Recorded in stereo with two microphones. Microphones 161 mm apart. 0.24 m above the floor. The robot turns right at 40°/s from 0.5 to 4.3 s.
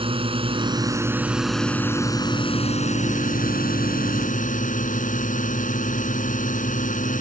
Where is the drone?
40° right; by 7.2 s 110° left.